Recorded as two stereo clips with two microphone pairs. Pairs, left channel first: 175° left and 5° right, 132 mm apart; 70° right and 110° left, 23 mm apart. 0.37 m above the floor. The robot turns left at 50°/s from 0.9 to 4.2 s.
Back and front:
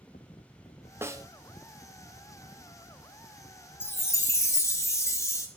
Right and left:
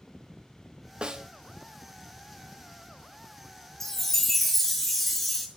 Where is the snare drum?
60° left, 0.5 m; by 1.2 s 50° left, 0.5 m.